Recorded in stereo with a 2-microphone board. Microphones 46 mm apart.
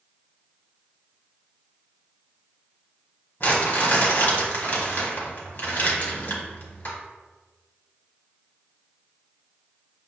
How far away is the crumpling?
About 1.0 m.